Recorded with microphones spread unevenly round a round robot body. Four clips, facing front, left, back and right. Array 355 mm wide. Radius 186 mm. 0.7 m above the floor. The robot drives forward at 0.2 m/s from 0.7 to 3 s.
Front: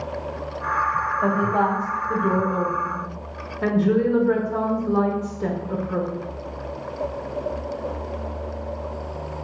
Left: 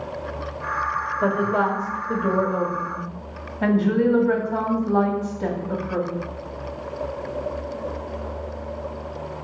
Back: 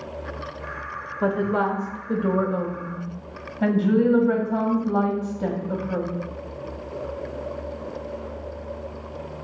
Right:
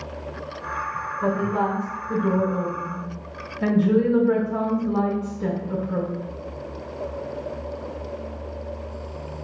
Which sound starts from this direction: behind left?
A woman speaking, at 1.2 s.